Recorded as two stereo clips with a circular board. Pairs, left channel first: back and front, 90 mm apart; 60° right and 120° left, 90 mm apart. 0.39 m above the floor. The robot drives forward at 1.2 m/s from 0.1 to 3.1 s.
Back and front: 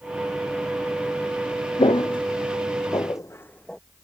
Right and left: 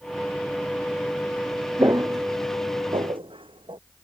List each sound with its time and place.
1.8 s footsteps: 175° left; by 3.8 s 95° left